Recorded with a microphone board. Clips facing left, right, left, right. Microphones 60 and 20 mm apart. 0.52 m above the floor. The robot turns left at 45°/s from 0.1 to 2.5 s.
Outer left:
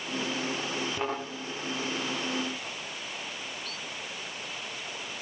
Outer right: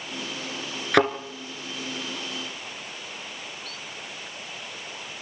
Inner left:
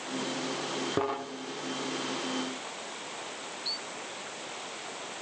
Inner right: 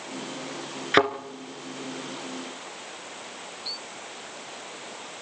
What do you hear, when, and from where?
0.9 s a thud: 85° right, 2.5 m; by 1.1 s 80° right, 2.5 m